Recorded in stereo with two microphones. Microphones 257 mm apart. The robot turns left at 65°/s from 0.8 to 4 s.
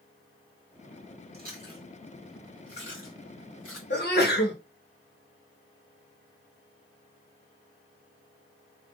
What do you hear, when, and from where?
1.3 s chewing: 40° right (ahead or behind), 1.8 m; by 3.8 s 60° left (ahead or behind), 1.8 m
3.9 s a sneeze: 50° left (ahead or behind), 1.1 m; by 4.6 s 40° left (ahead or behind), 1.1 m